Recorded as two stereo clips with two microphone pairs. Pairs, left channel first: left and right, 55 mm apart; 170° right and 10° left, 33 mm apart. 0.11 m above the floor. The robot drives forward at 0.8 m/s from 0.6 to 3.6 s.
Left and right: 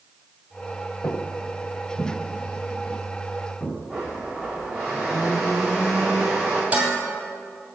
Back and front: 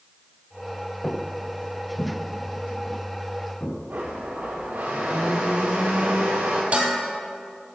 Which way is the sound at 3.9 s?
5° left.